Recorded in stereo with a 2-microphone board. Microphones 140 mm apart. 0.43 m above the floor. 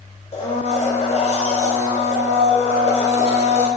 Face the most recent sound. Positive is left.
turn(degrees=45)  # may be behind; listen again after turning